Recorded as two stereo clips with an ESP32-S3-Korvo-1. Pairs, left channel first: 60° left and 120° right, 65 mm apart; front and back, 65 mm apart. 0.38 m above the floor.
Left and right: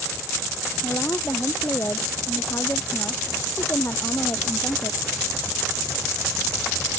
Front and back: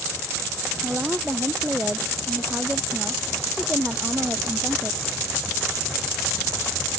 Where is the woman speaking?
110° left.